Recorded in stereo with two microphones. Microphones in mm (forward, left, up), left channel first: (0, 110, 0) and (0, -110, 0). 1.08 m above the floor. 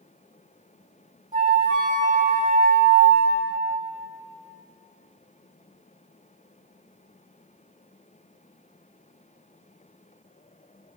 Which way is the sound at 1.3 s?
35° right (ahead or behind).